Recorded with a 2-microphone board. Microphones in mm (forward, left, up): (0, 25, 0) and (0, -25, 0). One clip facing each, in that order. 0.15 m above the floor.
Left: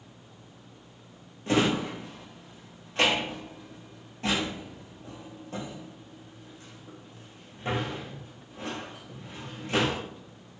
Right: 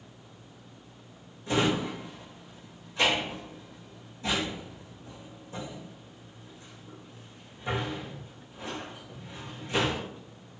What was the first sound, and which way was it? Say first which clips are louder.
A drawer: left 2 dB; 75° left (ahead or behind).